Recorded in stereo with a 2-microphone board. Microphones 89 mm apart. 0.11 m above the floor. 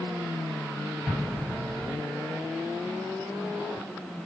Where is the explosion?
Centre (ahead or behind), 2 m.